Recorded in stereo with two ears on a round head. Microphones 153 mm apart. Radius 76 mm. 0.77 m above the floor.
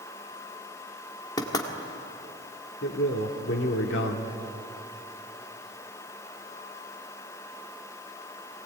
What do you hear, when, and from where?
1.4 s knocking: 25° left (ahead or behind), 1.7 m
2.8 s a man speaking: 75° left (ahead or behind), 1.7 m